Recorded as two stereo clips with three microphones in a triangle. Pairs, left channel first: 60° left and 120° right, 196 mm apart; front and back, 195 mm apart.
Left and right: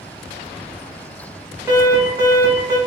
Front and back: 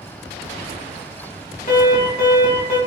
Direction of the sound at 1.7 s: 45° right.